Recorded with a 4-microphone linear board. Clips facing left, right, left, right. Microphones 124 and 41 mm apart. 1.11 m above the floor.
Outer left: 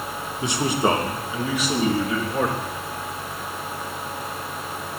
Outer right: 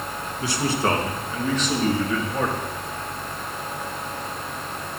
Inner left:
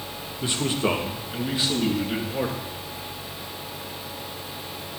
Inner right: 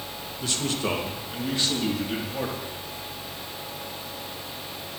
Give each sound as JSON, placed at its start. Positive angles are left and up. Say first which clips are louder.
{"t": 0.4, "sound": "a man speaking", "louder": "outer left 2 dB, inner left 3 dB", "side_deg": 20, "distance_m": 1.4}